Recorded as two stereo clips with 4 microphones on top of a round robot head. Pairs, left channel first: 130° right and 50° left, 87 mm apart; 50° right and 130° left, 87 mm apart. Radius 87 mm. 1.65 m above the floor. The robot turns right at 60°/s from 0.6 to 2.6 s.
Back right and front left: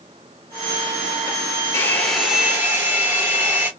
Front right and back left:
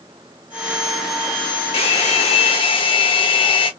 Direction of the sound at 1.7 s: 70° right.